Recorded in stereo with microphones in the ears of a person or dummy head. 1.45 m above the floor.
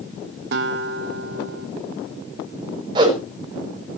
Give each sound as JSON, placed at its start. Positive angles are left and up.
{"t": 0.5, "sound": "a guitar", "side_deg": -65, "distance_m": 1.9}
{"t": 3.0, "sound": "a whoosh", "side_deg": -25, "distance_m": 5.5}